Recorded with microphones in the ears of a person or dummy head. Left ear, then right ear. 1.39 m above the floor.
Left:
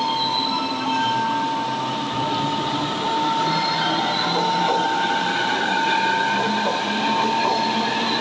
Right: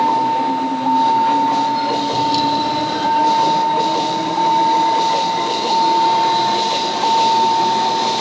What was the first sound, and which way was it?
A vehicle, 60° right (ahead or behind).